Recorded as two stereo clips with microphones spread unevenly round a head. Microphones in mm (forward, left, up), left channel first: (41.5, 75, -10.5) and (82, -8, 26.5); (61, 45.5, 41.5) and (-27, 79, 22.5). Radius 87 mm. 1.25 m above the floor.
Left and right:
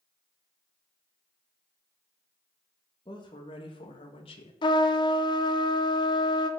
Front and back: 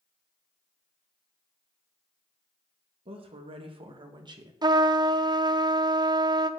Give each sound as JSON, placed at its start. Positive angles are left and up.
{"t": 3.0, "sound": "a woman speaking", "azimuth_deg": 170, "distance_m": 2.0}
{"t": 4.6, "sound": "a trumpet", "azimuth_deg": 130, "distance_m": 0.8}